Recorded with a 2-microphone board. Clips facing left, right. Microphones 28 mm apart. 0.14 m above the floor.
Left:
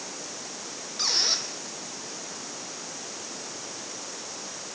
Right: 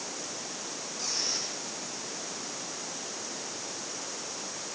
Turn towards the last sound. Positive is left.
turn(degrees=80)